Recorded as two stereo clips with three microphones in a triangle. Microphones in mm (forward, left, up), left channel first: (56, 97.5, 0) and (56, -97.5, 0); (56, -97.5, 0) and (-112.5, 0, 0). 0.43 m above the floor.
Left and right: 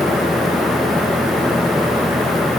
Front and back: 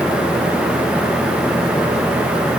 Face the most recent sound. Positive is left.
No sound to turn to.